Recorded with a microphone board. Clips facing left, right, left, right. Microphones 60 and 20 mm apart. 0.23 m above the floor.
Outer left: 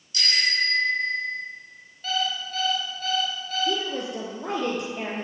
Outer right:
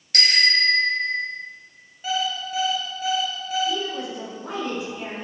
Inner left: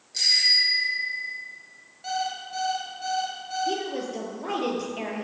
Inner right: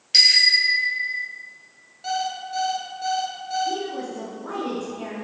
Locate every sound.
0.1 s a bicycle bell: 70° right (ahead or behind), 3.5 m
2.0 s an alarm clock: 10° right (ahead or behind), 2.5 m
3.7 s a woman speaking: 75° left (ahead or behind), 4.5 m